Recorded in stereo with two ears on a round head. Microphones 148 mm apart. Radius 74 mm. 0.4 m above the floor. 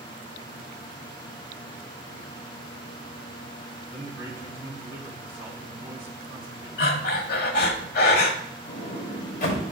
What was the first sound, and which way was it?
A man speaking, 15° right (ahead or behind).